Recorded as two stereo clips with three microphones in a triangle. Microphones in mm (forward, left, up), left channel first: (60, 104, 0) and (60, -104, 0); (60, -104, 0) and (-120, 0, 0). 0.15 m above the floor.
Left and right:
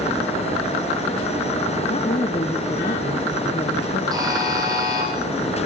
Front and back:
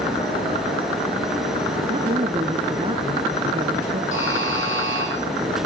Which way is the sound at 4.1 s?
20° right.